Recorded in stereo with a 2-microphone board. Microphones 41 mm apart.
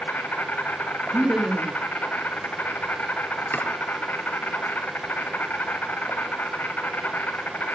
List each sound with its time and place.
0.0 s an insect: 45° left (ahead or behind), 2.5 m
1.1 s laughter: 15° right (ahead or behind), 2 m
3.5 s chopping: 60° left (ahead or behind), 3 m